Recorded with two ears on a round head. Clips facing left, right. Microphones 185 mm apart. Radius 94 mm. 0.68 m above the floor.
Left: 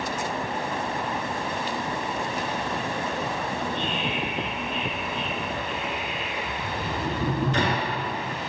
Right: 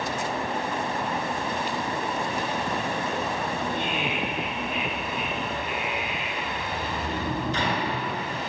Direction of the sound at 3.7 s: 10° right (ahead or behind).